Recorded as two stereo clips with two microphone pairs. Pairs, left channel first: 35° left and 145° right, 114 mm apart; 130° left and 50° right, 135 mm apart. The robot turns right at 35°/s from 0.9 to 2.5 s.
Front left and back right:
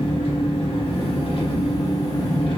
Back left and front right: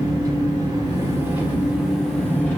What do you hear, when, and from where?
0.0 s an engine running: 10° left, 0.9 m; by 2.6 s 65° left, 0.9 m